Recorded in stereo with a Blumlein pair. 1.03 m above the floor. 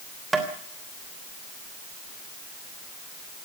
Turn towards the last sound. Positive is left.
turn(degrees=-10)